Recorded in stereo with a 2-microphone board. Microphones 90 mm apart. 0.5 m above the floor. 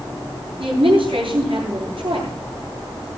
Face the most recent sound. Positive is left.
turn(degrees=-75)  # may be behind; listen again after turning